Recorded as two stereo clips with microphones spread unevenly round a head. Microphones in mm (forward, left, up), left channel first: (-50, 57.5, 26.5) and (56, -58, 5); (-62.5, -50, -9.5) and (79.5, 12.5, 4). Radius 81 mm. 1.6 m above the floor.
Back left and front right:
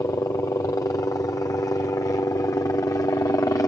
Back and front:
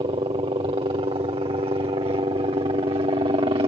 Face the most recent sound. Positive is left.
turn(degrees=65)